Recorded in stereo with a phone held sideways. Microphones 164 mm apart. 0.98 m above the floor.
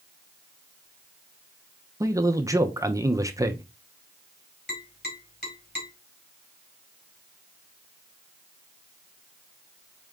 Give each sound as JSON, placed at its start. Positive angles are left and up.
{"t": 2.0, "sound": "a man speaking", "side_deg": -20, "distance_m": 0.6}
{"t": 4.7, "sound": "tapping", "side_deg": 80, "distance_m": 2.0}